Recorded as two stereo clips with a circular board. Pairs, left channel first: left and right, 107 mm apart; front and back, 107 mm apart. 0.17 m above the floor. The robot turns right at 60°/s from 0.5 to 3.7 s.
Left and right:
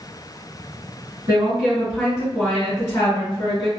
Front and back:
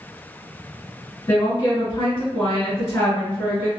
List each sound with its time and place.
1.3 s a woman speaking: 60° right, 1.7 m; by 3.7 s 85° left, 1.7 m